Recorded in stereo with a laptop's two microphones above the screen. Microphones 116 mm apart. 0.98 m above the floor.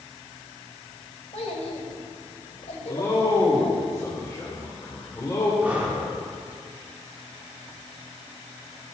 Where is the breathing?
15° right (ahead or behind), 3 m.